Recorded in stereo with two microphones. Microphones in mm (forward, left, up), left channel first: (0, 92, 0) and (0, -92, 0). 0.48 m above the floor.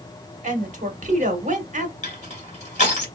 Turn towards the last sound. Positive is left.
turn(degrees=40)  # may be behind; listen again after turning